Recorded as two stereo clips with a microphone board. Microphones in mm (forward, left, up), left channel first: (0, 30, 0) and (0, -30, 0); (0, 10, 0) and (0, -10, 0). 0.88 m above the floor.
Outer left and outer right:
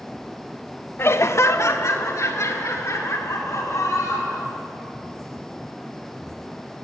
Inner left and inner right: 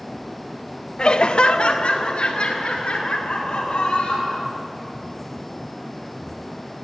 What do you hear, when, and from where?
1.0 s laughter: 45° left (ahead or behind), 0.6 m; by 4.5 s 60° left (ahead or behind), 5 m